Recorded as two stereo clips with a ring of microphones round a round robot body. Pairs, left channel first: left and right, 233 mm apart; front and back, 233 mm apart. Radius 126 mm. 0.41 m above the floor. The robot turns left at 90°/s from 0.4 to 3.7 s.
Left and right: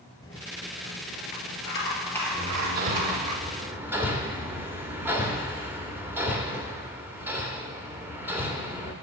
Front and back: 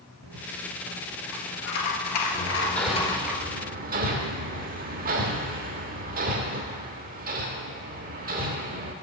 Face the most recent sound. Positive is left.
turn(degrees=-165)